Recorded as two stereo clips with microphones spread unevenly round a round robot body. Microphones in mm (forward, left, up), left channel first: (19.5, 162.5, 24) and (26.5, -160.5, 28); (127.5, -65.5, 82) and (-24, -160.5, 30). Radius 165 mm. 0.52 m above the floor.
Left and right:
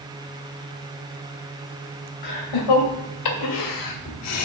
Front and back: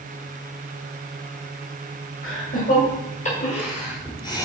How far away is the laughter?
About 2.5 m.